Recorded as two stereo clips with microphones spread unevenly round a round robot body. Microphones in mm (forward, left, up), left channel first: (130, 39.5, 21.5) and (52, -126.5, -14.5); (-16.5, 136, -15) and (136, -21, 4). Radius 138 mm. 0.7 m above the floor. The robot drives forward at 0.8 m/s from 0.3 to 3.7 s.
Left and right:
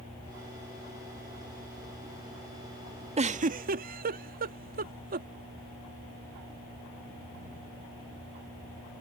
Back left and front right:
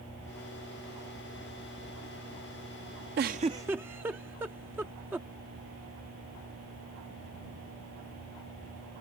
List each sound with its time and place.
3.2 s a giggle: 85° right; by 5.3 s 130° right